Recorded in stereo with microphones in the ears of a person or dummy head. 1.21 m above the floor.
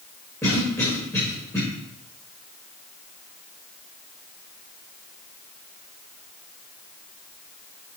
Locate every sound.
0.4 s a cough: 15° left (ahead or behind), 1.8 m